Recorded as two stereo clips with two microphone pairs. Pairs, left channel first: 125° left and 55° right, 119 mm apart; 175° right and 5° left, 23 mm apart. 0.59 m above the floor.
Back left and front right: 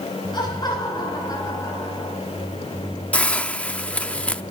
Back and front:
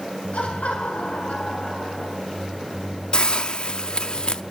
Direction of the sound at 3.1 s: 160° right.